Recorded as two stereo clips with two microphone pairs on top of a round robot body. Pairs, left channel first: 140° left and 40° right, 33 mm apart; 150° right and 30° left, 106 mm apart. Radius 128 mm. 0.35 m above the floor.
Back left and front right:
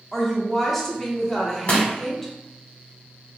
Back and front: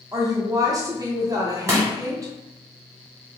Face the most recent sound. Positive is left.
turn(degrees=95)